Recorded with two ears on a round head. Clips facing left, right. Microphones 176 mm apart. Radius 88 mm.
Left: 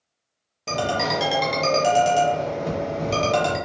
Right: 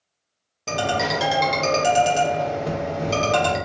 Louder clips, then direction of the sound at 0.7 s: Right 1 dB; centre (ahead or behind).